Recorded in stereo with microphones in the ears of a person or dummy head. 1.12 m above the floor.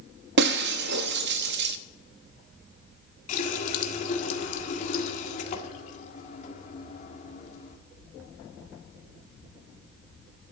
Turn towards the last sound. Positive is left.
turn(degrees=45)  # may be behind; listen again after turning